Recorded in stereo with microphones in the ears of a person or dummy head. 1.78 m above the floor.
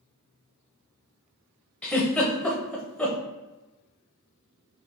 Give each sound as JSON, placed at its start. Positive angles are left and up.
{"t": 1.8, "sound": "a giggle", "side_deg": 5, "distance_m": 0.8}